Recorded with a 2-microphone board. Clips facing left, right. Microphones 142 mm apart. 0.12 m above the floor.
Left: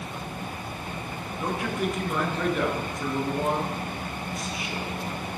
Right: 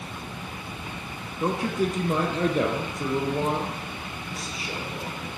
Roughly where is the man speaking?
Right.